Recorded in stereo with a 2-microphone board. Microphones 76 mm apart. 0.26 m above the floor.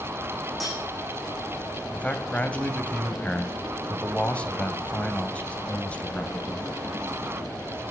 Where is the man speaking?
20° left (ahead or behind), 1.4 m.